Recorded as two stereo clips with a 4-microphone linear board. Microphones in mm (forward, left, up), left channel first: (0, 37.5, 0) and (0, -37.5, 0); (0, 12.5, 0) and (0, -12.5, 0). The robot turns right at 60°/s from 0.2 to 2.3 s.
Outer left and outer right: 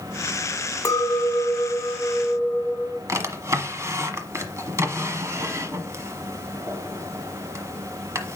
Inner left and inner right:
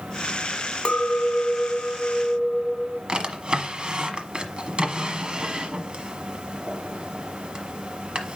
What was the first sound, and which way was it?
A clink, 70° left.